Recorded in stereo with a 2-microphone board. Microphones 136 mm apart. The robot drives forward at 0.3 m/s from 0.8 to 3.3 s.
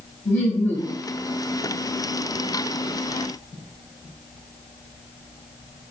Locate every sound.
0.2 s laughter: 10° left (ahead or behind), 1.3 m